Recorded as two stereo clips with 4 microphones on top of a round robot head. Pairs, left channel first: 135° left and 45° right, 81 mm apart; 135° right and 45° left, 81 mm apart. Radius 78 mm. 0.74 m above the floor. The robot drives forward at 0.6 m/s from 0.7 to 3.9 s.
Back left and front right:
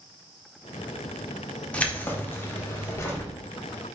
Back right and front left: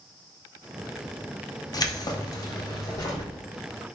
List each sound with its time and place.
1.7 s keys jangling: 150° right, 0.7 m; by 3.3 s 170° right, 1.5 m